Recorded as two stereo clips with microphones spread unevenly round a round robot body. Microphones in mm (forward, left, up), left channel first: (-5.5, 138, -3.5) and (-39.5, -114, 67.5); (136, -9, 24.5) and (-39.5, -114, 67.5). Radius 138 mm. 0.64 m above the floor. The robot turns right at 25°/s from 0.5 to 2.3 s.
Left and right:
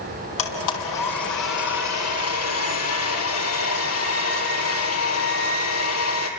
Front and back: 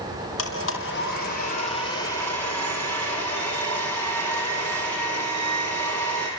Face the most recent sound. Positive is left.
turn(degrees=115)